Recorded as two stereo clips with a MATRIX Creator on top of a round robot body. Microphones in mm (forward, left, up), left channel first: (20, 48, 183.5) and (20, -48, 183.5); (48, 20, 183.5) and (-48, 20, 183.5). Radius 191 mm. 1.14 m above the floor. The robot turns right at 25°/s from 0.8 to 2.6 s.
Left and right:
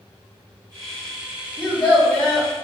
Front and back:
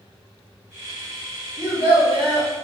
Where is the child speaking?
5° left, 0.8 m; by 2.5 s 25° left, 0.8 m.